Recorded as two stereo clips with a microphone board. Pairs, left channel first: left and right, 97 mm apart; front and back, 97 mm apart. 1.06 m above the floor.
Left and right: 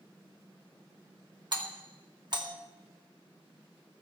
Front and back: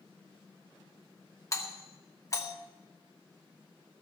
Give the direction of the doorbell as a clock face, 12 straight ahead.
2 o'clock.